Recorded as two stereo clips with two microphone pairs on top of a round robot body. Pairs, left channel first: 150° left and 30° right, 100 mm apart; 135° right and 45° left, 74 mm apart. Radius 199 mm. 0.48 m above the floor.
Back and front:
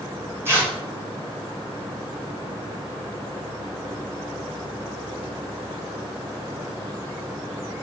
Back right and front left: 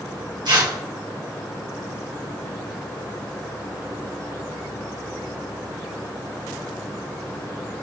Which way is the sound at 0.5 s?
35° left.